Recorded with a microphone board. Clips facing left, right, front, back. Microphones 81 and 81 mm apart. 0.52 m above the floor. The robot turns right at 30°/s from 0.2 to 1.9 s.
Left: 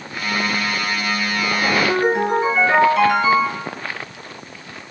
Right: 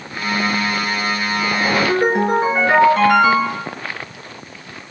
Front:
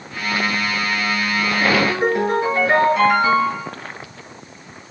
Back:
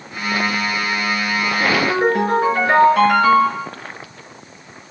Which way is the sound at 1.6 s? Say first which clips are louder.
Right 1 dB, back 1 dB; 150° right.